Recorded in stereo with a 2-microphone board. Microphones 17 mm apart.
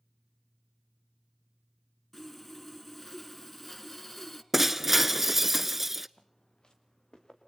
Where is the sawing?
15° left (ahead or behind), 1.4 m.